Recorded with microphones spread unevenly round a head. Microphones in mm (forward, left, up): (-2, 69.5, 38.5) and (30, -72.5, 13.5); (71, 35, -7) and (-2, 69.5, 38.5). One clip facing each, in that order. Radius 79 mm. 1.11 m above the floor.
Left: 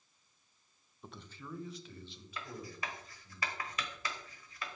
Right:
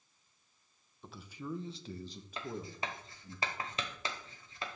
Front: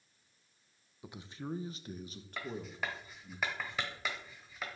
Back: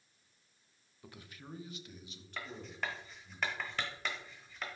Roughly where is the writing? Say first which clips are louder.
Right 4 dB, front 2 dB; behind right.